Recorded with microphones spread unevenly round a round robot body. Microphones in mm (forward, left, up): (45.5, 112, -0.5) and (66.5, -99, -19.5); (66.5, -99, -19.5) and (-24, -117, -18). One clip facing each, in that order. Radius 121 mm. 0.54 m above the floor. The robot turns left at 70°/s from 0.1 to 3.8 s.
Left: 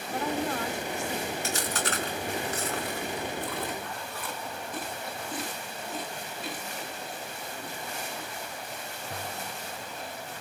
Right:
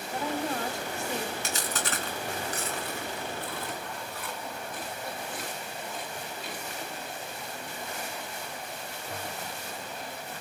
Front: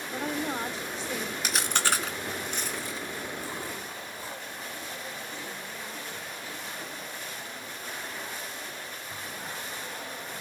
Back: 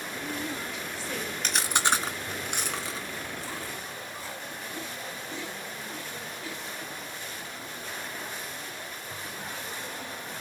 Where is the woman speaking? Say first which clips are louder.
Left 1 dB, front 5 dB; 5° left, 3 m; by 1.3 s 80° right, 3 m.